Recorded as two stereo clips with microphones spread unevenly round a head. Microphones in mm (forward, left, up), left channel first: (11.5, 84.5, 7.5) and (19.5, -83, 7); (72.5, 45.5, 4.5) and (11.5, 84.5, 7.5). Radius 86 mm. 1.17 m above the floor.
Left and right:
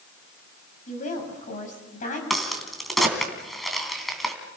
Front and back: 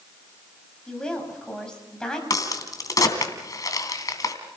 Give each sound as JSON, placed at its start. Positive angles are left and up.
{"t": 0.9, "sound": "a woman speaking", "azimuth_deg": 45, "distance_m": 7.0}
{"t": 2.3, "sound": "a crack", "azimuth_deg": 5, "distance_m": 3.0}